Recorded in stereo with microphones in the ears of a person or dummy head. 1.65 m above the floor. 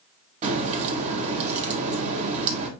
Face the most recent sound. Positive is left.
turn(degrees=-35)  # may be behind; listen again after turning